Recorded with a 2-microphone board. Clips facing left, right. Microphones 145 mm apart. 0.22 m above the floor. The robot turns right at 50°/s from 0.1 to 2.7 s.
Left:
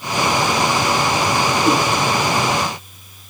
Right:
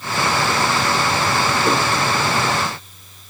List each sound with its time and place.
1.6 s a whoosh: 10° left (ahead or behind), 1.1 m; by 1.8 s 15° left (ahead or behind), 1.1 m